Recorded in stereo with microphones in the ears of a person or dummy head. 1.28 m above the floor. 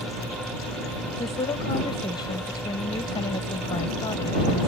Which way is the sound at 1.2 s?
25° left (ahead or behind).